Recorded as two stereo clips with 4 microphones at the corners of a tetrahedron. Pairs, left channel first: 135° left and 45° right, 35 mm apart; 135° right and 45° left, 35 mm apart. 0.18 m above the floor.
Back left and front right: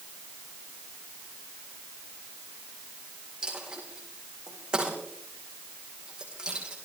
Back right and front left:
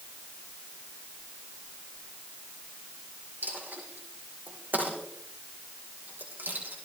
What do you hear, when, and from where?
3.4 s a dropped coin: 25° left, 5 m